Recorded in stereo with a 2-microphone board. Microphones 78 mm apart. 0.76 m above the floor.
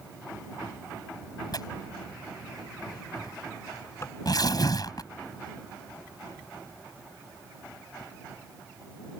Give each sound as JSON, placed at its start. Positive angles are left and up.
{"t": 1.5, "sound": "tearing paper", "side_deg": 55}
{"t": 4.0, "sound": "tapping", "side_deg": 35}